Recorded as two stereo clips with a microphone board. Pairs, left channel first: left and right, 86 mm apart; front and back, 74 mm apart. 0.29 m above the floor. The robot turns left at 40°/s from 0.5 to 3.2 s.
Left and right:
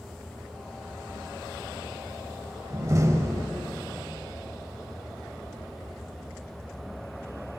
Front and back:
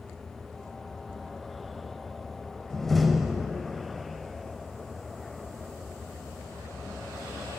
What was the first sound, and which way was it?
A door slam, 75° right.